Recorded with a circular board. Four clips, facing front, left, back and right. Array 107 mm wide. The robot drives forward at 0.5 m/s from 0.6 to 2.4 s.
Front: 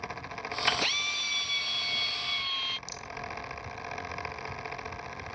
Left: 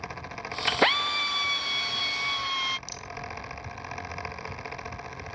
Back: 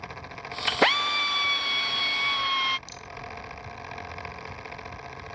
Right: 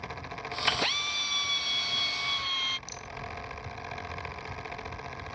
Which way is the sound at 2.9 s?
110° left.